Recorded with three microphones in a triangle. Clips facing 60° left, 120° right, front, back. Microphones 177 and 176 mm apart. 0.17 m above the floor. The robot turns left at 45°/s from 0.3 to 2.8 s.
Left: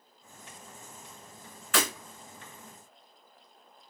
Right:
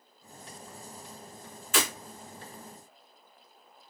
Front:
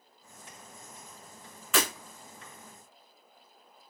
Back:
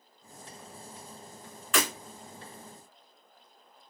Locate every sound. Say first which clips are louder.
1.7 s breaking glass: left 1 dB, even; 90° left, 1.9 m; by 1.9 s 80° left, 1.9 m